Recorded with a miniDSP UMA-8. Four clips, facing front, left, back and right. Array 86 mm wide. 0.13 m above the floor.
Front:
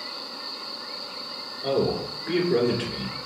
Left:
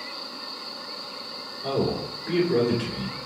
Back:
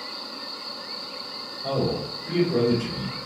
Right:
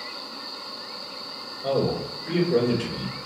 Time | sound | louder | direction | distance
1.6 | a man speaking | right 2 dB, front 2 dB | 15° left | 2 m